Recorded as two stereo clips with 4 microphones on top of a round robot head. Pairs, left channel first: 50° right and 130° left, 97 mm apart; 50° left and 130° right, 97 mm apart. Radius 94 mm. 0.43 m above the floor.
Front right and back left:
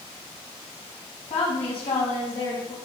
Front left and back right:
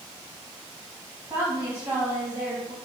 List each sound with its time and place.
1.3 s a woman speaking: 75° right, 4.5 m; by 2.8 s 60° right, 4 m